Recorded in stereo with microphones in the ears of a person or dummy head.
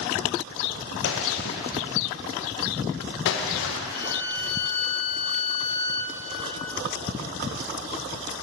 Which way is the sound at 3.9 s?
55° left (ahead or behind).